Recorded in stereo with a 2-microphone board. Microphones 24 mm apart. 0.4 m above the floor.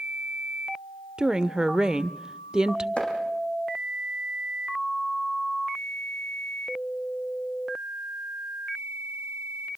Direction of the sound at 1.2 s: 30° right (ahead or behind).